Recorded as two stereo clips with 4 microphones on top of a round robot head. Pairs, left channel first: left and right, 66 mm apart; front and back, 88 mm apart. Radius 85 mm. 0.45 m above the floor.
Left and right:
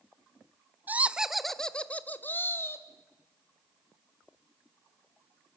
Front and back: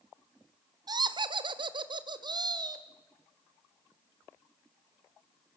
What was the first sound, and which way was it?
Laughter, 150° right.